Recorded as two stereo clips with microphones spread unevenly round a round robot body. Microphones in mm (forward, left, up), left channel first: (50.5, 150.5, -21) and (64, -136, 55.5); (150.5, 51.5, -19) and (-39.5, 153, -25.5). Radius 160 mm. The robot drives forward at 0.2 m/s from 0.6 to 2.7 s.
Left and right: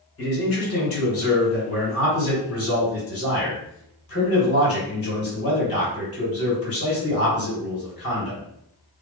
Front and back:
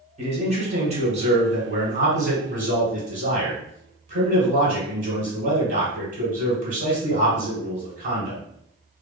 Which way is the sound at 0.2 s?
105° left.